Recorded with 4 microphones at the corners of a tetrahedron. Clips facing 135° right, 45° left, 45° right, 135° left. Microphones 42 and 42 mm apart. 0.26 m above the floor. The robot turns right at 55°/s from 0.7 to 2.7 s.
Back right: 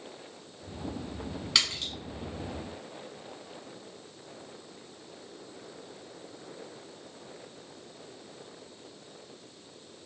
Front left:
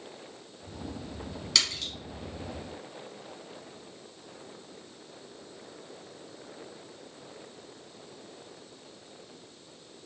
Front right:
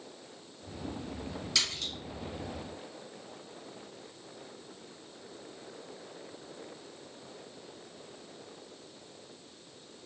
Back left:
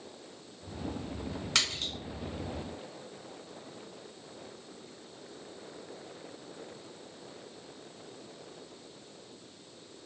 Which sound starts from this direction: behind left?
A splash, at 1.6 s.